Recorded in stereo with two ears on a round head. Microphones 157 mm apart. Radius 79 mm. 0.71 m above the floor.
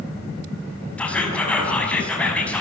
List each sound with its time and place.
1.0 s whispering: 5° left (ahead or behind), 6 m